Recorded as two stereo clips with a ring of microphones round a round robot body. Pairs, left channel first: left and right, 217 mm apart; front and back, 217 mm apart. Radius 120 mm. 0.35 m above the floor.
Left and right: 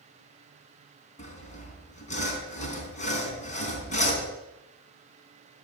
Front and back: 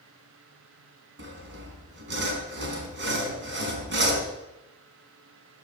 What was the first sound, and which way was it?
Sawing, 145° left.